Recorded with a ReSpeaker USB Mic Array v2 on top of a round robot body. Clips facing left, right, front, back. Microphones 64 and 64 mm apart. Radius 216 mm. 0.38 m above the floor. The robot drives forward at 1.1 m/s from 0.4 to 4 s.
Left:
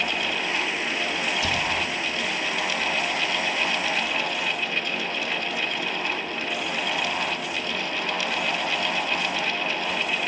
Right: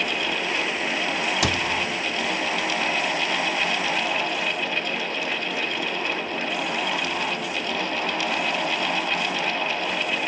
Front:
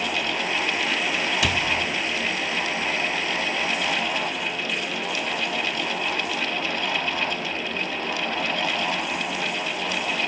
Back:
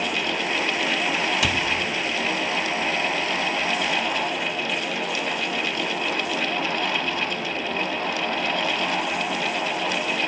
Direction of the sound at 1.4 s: 90° right.